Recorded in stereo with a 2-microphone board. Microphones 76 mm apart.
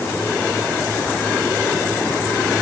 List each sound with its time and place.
Only background noise.